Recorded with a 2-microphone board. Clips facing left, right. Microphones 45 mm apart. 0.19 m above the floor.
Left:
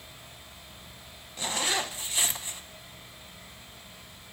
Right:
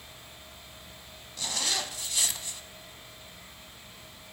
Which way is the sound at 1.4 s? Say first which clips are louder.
Left 3 dB; 25° left (ahead or behind).